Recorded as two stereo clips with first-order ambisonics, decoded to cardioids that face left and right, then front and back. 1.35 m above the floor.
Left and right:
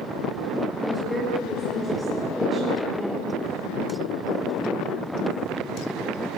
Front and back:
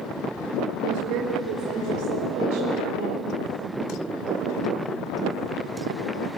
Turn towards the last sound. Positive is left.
turn(degrees=175)